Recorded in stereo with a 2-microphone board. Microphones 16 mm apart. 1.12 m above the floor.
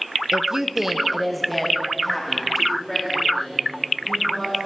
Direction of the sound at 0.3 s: 40° right (ahead or behind).